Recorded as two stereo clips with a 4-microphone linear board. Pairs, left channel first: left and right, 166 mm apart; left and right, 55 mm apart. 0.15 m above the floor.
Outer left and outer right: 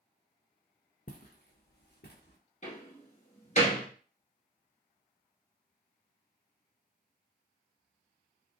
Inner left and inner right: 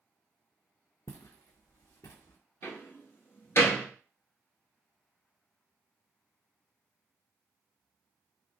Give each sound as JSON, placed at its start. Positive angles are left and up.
{"t": 1.1, "sound": "footsteps", "side_deg": 60, "distance_m": 0.7}
{"t": 2.6, "sound": "a door slam", "side_deg": 45, "distance_m": 1.3}